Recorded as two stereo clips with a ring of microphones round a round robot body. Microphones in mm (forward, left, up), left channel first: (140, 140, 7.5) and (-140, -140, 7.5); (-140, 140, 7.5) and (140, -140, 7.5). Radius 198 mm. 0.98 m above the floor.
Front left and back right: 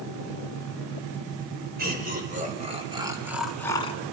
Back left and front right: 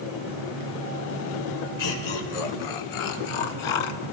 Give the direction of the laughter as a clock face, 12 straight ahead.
7 o'clock.